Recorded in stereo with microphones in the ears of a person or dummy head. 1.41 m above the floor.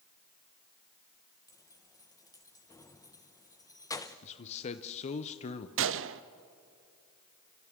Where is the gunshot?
60° right (ahead or behind), 0.6 m.